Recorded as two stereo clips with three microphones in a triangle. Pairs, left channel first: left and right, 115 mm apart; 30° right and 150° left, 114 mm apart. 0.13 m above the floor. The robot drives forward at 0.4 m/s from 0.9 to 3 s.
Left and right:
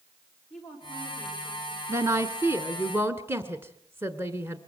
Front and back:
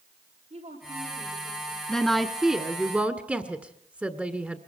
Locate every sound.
0.5 s a woman speaking: 170° left, 8 m
1.9 s a woman speaking: 110° right, 1.3 m; by 4.6 s 140° right, 1.4 m